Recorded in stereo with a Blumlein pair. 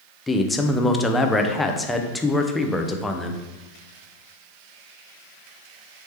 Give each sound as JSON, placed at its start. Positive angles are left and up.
{"t": 0.3, "sound": "a man speaking", "azimuth_deg": 10, "distance_m": 0.5}